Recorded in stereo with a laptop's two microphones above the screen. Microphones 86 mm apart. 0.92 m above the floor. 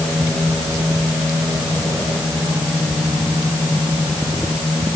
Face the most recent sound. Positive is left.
No sound to turn to.